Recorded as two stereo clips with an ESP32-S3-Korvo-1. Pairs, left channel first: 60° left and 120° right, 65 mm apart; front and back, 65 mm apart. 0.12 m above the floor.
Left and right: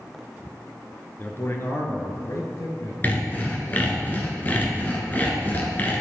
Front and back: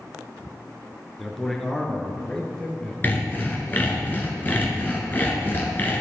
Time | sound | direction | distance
1.2 | a man speaking | 85° left | 1.5 m
3.0 | sawing | 30° left | 1.8 m